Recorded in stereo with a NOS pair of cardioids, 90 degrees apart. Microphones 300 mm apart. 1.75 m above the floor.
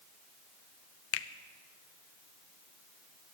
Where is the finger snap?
55° left, 0.8 m.